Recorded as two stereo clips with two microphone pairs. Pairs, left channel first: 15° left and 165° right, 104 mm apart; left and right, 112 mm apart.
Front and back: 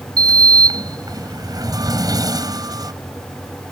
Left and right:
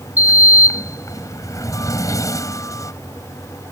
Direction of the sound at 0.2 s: 145° left.